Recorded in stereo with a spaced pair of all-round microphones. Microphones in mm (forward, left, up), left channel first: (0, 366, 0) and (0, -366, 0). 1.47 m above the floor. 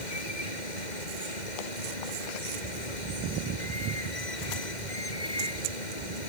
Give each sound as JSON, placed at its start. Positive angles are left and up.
{"t": 0.0, "sound": "running water", "side_deg": 75}